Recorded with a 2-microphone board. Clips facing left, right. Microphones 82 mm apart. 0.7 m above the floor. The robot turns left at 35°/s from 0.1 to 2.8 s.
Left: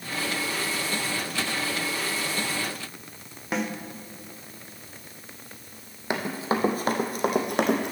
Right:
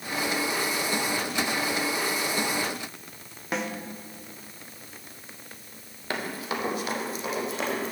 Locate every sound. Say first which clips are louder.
3.5 s a snare drum: left 2 dB; centre (ahead or behind), 1.0 m
6.1 s running footsteps: left 4 dB; 20° left (ahead or behind), 1.4 m; by 7.9 s 70° left (ahead or behind), 1.9 m